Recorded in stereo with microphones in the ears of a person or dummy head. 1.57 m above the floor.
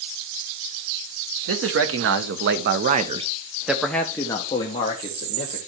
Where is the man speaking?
85° right, 1.5 m; by 5.6 s 35° left (ahead or behind), 1.9 m.